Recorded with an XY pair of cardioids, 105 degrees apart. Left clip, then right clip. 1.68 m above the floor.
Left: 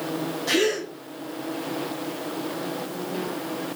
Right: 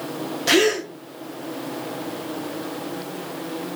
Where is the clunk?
I don't hear a clunk.